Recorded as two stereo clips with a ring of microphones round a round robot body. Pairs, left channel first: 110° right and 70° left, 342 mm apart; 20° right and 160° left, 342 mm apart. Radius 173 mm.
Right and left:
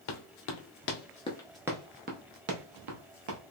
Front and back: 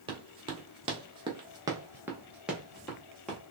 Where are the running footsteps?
130° right, 1.0 m; by 3.4 s 65° left, 1.1 m.